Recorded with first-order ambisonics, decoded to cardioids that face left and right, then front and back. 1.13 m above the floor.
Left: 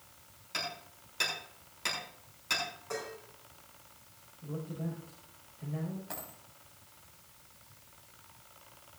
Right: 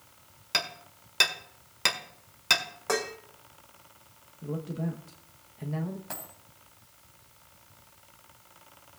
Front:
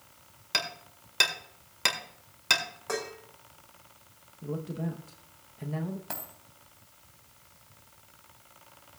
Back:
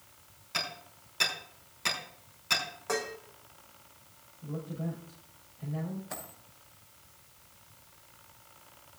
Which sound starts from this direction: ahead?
A dropped coin, at 6.1 s.